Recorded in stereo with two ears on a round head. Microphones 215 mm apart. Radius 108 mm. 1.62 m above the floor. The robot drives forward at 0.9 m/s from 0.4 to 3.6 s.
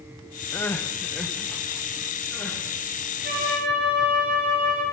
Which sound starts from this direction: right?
A flute, at 3.2 s.